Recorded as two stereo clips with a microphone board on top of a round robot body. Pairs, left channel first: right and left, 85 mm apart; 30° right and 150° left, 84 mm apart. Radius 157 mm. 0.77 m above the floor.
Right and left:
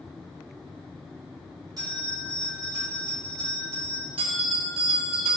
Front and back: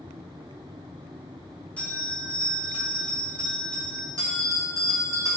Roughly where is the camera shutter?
No camera shutter in this recording.